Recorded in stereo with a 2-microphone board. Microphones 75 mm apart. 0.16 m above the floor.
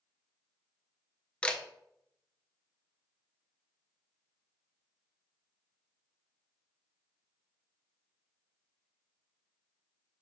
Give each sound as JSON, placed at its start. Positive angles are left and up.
{"t": 1.4, "sound": "a camera shutter", "side_deg": 15, "distance_m": 0.8}